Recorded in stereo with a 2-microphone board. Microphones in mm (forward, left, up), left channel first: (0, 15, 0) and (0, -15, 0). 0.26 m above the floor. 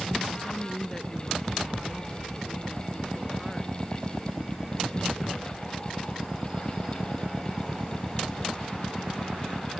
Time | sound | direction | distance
0.4 | a woman speaking | 10° left (ahead or behind) | ?